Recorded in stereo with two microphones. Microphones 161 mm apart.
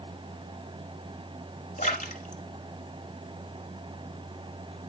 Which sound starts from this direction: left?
A splash, at 1.8 s.